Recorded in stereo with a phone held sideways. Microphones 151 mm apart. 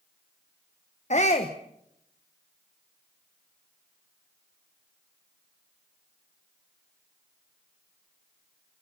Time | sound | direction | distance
1.1 | a shout | 50° left (ahead or behind) | 1.2 m